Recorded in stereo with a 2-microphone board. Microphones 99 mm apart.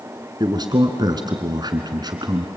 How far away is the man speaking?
About 2.0 m.